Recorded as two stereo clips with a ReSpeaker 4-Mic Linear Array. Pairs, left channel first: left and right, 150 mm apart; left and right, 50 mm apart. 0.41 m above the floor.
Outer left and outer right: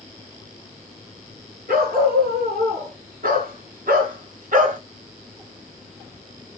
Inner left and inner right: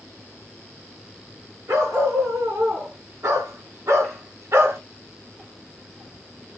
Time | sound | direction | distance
1.7 | a dog barking | 85° right | 3.5 m